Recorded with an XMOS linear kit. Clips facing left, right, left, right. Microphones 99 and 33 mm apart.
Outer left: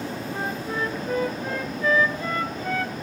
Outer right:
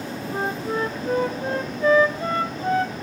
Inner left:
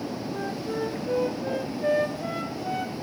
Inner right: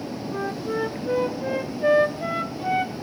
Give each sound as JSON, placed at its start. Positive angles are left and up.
{"t": 0.3, "sound": "a flute", "side_deg": -35, "distance_m": 0.9}